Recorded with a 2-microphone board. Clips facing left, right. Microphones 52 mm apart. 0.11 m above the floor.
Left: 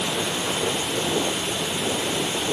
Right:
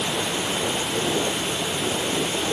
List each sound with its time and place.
Only background noise.